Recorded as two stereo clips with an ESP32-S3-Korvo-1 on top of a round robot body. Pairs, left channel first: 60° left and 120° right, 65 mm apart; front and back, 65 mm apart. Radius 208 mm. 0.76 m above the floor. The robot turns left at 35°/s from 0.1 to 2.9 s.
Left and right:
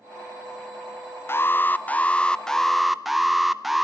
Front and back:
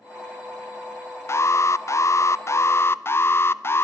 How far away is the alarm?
About 1.0 m.